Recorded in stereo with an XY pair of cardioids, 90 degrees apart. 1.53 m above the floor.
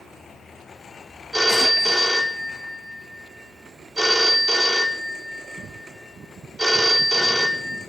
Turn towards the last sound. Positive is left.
turn(degrees=-15)